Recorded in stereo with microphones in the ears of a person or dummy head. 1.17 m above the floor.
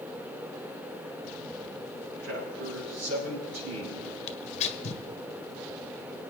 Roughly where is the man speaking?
Right.